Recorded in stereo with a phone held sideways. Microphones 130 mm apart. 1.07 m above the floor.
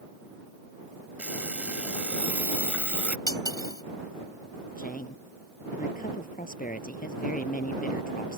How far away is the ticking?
I don't hear ticking.